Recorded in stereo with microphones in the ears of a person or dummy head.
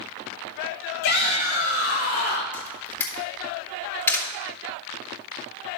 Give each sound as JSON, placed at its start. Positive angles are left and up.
{"t": 1.0, "sound": "a shout", "side_deg": 65, "distance_m": 2.5}
{"t": 2.5, "sound": "a camera shutter", "side_deg": 15, "distance_m": 3.0}